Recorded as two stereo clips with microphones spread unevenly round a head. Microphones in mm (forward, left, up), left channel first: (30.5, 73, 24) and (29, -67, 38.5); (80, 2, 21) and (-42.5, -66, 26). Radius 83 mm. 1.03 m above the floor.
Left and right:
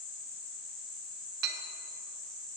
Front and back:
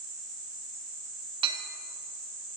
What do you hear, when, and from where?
1.4 s a clink: 95° right, 0.6 m